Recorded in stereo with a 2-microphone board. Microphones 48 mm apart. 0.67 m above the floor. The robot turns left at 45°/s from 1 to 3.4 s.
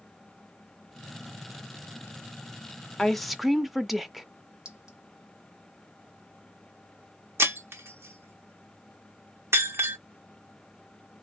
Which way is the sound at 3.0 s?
10° left (ahead or behind).